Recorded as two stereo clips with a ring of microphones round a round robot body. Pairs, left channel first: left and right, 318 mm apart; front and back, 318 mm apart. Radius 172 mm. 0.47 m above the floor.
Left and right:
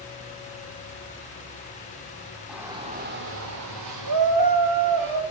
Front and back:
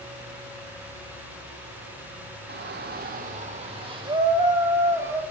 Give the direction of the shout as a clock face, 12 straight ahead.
6 o'clock.